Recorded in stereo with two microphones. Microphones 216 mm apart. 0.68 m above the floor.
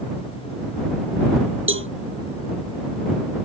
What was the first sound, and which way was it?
A cowbell, 70° right (ahead or behind).